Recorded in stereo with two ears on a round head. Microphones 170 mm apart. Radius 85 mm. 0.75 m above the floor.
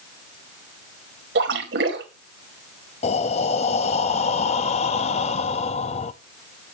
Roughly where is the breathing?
Left.